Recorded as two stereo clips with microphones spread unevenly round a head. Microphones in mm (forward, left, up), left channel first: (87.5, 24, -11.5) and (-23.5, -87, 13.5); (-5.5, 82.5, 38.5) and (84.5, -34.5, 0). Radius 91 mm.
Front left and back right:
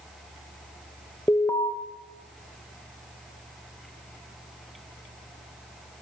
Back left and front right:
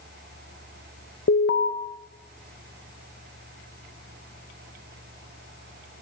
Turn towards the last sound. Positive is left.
turn(degrees=120)